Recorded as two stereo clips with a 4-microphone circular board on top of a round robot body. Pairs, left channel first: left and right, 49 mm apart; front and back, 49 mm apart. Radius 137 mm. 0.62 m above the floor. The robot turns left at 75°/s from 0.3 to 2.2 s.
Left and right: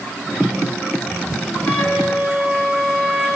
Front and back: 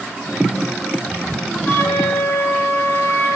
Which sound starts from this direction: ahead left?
A flute, at 1.7 s.